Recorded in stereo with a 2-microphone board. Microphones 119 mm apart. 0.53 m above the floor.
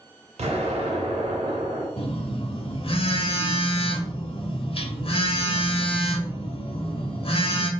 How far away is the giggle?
No giggle in this recording.